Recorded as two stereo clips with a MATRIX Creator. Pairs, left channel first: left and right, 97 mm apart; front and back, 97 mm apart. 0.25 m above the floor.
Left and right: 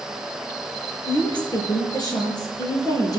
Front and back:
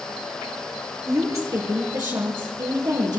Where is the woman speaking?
125° left, 4.5 m; by 3.2 s 140° left, 6.5 m.